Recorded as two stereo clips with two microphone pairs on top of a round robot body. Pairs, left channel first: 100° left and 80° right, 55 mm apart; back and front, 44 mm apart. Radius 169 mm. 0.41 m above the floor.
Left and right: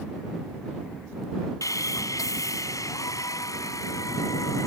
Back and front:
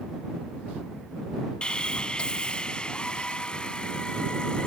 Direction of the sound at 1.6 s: 115° left.